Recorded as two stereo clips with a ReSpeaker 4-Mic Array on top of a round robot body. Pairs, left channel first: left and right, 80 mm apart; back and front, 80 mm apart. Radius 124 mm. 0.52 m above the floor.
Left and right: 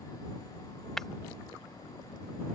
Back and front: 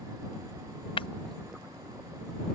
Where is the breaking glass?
175° left.